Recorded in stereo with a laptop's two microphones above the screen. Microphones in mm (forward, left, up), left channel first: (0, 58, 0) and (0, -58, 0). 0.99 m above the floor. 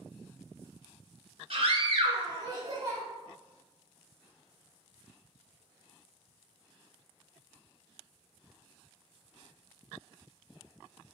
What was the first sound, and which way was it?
A scream, 55° right (ahead or behind).